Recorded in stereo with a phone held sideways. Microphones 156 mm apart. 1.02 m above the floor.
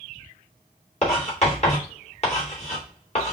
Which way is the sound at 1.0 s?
45° left (ahead or behind).